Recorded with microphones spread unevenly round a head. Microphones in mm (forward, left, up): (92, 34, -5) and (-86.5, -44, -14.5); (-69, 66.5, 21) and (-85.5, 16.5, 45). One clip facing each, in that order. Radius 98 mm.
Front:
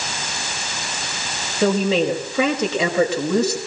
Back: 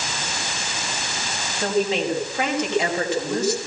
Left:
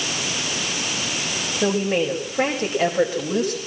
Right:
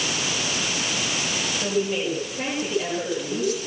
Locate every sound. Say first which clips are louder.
1.6 s a woman speaking: front 4 dB, left 5 dB; 10° left, 5.5 m